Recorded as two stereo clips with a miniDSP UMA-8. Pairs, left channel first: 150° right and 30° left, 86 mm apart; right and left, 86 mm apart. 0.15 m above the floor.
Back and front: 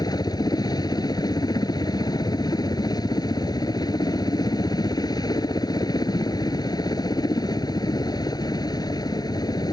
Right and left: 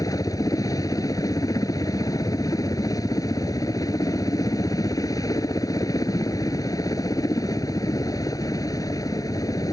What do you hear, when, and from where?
0.0 s a helicopter: 125° right